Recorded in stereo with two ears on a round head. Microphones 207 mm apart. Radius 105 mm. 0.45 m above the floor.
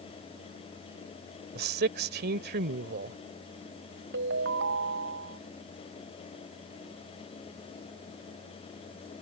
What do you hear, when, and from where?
1.6 s a man speaking: 45° right (ahead or behind)
4.1 s a ringtone: 50° right (ahead or behind)